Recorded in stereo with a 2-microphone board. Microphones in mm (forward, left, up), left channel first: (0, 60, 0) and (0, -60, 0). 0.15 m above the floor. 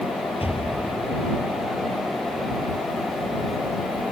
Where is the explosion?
55° left (ahead or behind).